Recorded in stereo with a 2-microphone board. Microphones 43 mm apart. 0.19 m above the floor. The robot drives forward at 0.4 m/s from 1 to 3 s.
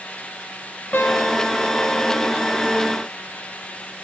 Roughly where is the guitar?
Left.